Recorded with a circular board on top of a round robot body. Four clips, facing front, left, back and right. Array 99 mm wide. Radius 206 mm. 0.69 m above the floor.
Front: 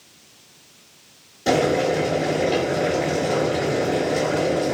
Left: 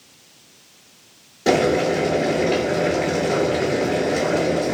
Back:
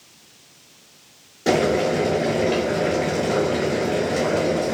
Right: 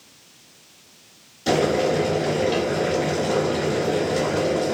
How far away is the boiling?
About 1.3 m.